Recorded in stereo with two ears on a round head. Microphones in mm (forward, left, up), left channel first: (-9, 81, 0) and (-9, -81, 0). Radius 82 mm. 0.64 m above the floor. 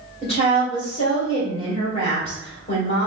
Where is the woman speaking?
35° left (ahead or behind), 1.8 m.